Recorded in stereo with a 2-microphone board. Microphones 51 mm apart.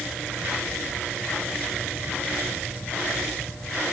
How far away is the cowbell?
No cowbell in this recording.